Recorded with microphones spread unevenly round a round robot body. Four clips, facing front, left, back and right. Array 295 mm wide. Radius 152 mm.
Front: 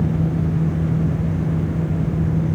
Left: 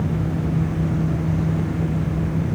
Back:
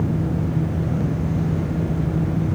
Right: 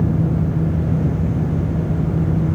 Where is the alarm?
I don't hear an alarm.